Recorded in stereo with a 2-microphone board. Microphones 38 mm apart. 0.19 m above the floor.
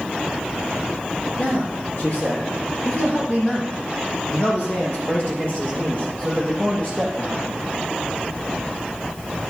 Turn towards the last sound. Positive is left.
turn(degrees=40)  # may be behind; listen again after turning